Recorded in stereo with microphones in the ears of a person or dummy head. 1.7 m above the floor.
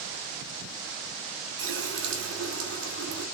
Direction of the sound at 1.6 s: 75° right (ahead or behind).